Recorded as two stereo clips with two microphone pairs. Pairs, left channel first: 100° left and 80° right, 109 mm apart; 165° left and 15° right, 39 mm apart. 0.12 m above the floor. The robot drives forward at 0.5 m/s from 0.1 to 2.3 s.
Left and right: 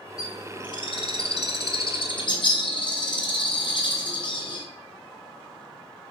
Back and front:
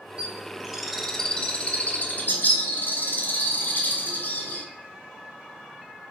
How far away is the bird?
About 0.8 m.